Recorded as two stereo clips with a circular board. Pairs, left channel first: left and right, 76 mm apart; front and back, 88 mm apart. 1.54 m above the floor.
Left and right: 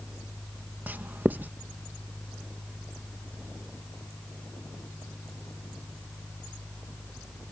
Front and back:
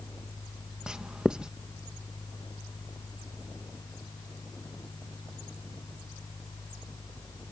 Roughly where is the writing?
Right.